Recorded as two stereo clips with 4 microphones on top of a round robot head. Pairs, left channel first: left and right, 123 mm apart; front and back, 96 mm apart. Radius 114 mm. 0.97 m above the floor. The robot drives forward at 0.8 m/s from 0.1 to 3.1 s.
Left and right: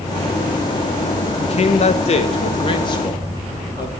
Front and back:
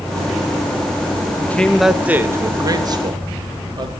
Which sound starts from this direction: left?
A man speaking, at 1.4 s.